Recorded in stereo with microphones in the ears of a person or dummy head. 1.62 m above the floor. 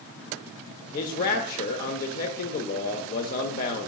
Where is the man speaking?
45° left (ahead or behind), 0.6 m.